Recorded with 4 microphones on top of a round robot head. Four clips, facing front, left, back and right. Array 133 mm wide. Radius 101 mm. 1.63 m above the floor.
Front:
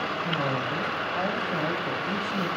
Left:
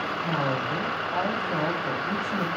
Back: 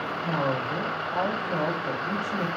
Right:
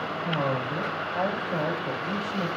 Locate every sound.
0.2 s a woman speaking: 120° left, 4 m